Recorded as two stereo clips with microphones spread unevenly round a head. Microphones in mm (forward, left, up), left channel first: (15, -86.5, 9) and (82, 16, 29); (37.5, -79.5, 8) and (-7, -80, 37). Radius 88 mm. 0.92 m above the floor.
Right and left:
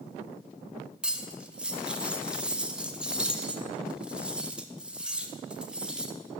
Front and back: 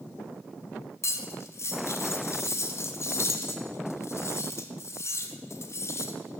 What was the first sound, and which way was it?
Cutlery clinking, 25° right.